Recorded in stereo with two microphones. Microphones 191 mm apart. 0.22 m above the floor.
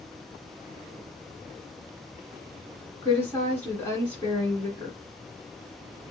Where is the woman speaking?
10° left (ahead or behind), 2 m.